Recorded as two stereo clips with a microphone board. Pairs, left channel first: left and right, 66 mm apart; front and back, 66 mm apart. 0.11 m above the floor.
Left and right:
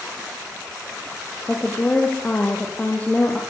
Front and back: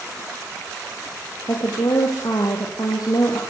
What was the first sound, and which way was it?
A woman speaking, 25° left.